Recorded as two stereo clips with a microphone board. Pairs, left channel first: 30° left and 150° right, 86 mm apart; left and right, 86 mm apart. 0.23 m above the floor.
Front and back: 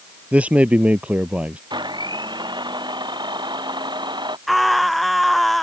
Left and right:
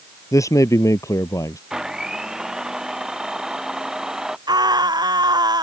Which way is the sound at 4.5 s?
60° right.